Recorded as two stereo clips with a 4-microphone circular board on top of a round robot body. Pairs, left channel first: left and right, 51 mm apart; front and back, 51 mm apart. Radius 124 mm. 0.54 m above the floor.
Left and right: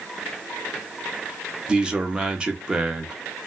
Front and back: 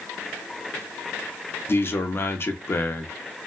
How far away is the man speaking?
About 0.9 m.